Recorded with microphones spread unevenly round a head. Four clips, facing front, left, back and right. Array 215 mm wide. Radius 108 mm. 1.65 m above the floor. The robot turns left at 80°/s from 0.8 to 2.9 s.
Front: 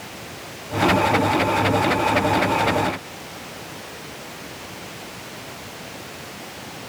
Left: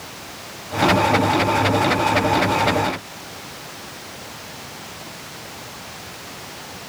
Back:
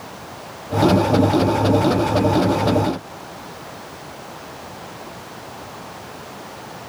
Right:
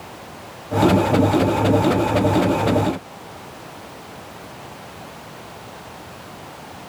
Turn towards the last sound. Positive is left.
No sound to turn to.